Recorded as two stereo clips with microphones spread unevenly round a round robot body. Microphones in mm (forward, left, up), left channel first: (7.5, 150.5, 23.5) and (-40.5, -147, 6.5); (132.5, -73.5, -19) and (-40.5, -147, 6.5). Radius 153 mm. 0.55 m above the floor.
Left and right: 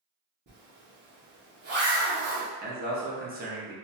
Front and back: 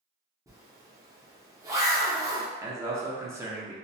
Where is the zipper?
80° right, 0.9 m.